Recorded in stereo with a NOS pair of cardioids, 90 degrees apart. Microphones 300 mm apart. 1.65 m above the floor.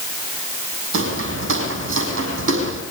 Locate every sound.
0.9 s footsteps: 45° right, 5 m